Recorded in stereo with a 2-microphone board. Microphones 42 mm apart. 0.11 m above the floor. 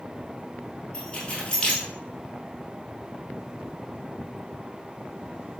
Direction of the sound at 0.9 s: 25° left (ahead or behind).